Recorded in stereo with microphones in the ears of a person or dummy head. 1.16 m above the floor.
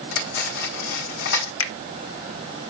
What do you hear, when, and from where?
0.1 s cutlery clinking: 60° left (ahead or behind), 1.6 m
1.6 s a finger snap: 75° left (ahead or behind), 1.1 m